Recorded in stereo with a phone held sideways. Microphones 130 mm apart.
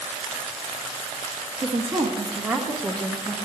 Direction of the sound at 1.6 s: 50° right (ahead or behind).